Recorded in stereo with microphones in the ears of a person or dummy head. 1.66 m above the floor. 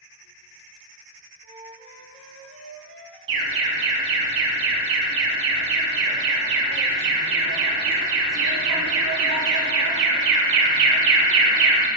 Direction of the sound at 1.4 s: 45° left (ahead or behind).